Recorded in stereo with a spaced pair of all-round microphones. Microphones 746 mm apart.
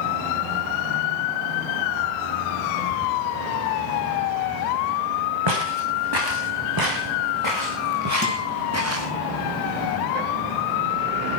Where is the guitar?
15° right (ahead or behind), 6 m.